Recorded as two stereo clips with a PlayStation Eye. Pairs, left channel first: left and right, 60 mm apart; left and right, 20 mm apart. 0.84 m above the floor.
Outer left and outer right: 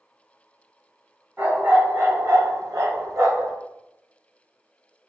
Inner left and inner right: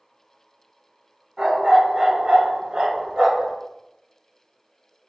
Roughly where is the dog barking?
Right.